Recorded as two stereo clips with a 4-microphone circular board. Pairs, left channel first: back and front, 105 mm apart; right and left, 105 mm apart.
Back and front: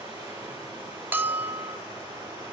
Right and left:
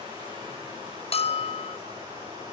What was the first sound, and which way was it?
Running water, 45° left.